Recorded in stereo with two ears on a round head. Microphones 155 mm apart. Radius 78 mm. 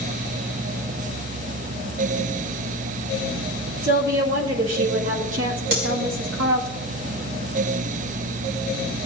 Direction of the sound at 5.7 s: 60° right (ahead or behind).